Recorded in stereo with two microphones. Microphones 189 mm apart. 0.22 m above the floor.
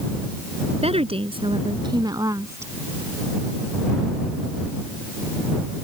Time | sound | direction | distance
0.8 | a woman speaking | 35° right (ahead or behind) | ?